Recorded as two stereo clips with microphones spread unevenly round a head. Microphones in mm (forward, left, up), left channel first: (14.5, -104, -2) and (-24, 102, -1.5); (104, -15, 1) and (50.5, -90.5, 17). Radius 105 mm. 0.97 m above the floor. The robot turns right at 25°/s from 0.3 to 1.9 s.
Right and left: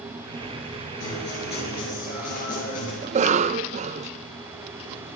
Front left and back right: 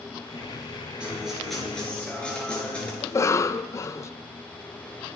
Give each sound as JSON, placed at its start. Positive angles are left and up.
{"t": 1.0, "sound": "a guitar", "azimuth_deg": -45, "distance_m": 6.0}
{"t": 3.0, "sound": "a cough", "azimuth_deg": 60, "distance_m": 0.5}